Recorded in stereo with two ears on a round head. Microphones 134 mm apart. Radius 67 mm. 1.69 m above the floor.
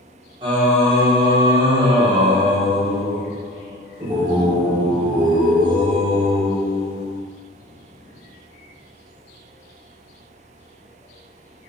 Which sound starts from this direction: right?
Singing, at 0.4 s.